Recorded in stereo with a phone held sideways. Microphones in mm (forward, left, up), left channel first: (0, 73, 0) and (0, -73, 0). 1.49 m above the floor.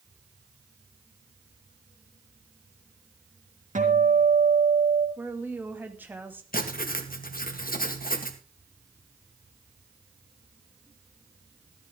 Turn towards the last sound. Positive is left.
turn(degrees=80)